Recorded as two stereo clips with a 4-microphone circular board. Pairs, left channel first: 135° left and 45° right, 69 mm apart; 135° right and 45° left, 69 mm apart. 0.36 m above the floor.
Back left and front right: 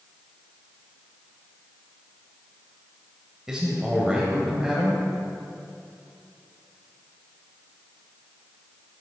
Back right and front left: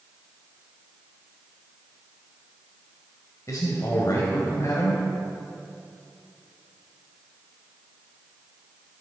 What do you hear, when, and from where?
3.5 s a man speaking: 125° right, 1.9 m